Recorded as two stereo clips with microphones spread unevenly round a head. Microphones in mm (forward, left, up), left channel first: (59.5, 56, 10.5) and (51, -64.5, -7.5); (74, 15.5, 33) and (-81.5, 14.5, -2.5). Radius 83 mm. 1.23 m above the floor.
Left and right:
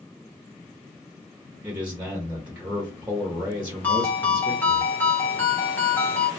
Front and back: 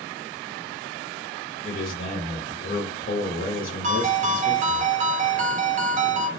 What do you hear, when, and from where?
1.6 s a man speaking: 30° right, 0.7 m
3.8 s a ringtone: 145° left, 0.7 m